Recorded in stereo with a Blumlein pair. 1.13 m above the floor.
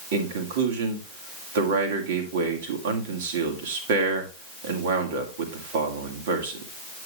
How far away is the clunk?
No clunk in this recording.